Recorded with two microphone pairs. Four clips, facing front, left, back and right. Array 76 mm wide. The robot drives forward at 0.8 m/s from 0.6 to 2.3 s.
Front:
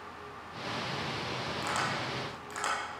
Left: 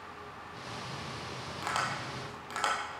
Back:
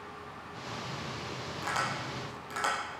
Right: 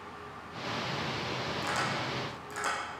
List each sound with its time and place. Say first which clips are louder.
1.6 s tapping: left 1 dB, back 1 dB; 90° left, 3.5 m; by 2.8 s 100° left, 3.5 m